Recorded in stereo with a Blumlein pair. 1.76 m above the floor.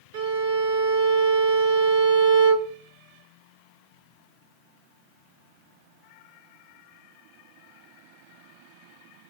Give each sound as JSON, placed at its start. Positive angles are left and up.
{"t": 0.1, "sound": "a violin", "azimuth_deg": -55, "distance_m": 0.7}